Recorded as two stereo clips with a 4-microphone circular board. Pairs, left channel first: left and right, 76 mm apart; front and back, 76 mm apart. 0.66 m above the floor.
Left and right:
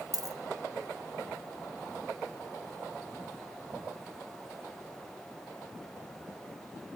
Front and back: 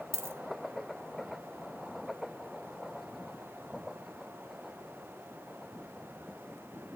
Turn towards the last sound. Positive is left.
turn(degrees=-125)